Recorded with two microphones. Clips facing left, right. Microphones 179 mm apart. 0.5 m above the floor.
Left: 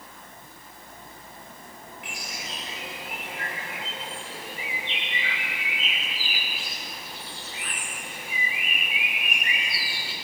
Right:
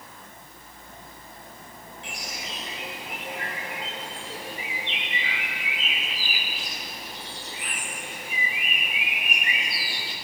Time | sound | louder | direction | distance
2.0 | a bird | right 2 dB | 30° right (ahead or behind) | 8 m